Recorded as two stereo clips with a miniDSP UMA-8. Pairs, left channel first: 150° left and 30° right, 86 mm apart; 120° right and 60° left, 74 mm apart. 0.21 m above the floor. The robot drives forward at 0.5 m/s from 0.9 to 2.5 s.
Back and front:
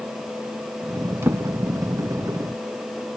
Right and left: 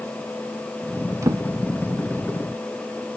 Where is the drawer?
25° left, 0.6 m; by 1.4 s 30° left, 0.5 m.